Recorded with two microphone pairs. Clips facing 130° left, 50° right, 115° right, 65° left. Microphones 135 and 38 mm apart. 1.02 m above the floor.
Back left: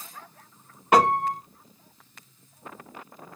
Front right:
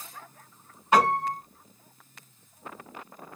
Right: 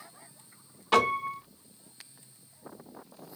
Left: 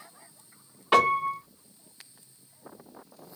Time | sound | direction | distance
0.9 | a piano | 140° left | 1.4 m